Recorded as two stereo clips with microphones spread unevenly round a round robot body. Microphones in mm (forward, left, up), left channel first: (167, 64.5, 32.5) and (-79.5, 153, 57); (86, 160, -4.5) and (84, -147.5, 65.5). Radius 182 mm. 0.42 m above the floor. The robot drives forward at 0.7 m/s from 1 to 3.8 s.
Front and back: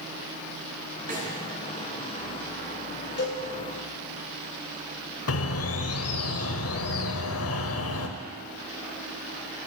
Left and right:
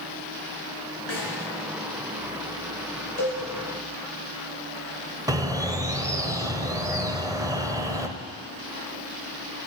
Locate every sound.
1.1 s a snare drum: 100° left, 6 m
3.2 s a cowbell: 25° left, 8.5 m
5.3 s a bird: 5° right, 1.4 m